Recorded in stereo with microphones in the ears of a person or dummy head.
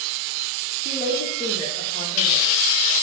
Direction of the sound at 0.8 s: 25° left (ahead or behind).